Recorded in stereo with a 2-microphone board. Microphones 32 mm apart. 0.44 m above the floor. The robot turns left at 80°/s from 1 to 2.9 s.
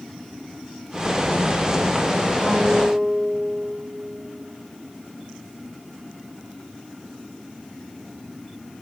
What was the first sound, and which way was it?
A guitar, 105° right.